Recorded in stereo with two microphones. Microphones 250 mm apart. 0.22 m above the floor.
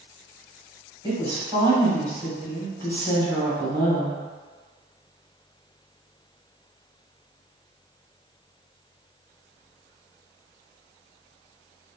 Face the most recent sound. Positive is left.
turn(degrees=-20)  # may be behind; listen again after turning